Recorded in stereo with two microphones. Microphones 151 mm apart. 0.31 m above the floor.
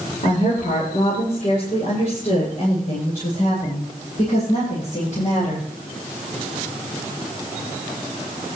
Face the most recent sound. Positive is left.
turn(degrees=60)  # may be behind; listen again after turning